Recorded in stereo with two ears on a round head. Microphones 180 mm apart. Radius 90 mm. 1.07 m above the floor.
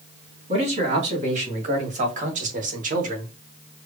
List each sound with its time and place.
0.5 s a man speaking: 35° right (ahead or behind), 2.5 m; by 3.3 s 45° right (ahead or behind), 1.1 m